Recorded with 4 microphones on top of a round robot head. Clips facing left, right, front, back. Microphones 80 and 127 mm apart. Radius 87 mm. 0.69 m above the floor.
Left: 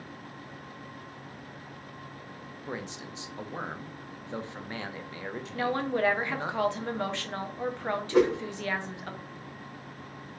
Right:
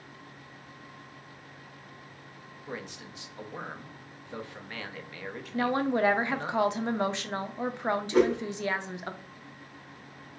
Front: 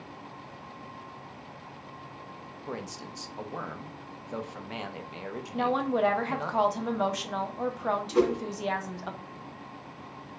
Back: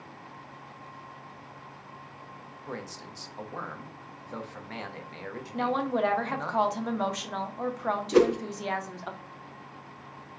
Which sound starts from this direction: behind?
A whoosh, at 8.1 s.